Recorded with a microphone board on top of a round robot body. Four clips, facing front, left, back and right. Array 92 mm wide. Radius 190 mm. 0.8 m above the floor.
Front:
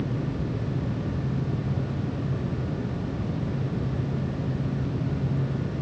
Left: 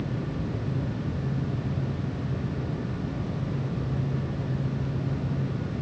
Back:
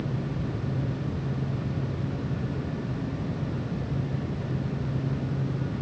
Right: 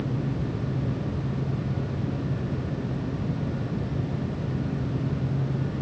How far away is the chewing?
No chewing in this recording.